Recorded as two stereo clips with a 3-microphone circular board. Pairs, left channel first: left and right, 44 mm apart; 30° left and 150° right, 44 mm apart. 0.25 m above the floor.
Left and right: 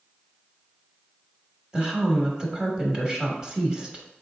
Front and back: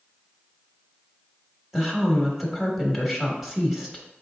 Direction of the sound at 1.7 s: 90° right.